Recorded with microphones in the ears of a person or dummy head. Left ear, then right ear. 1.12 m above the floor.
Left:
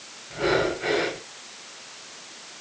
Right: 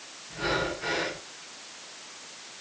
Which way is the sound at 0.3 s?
25° left (ahead or behind).